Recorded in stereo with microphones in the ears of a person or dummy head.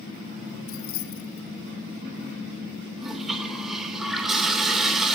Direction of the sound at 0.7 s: 65° left (ahead or behind).